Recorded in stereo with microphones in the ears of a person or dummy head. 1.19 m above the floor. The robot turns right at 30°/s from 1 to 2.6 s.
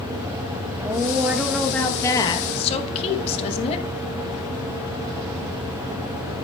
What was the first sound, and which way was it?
A woman speaking, 15° right.